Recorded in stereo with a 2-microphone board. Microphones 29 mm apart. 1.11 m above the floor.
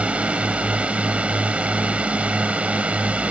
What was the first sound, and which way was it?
A drone, 50° right (ahead or behind).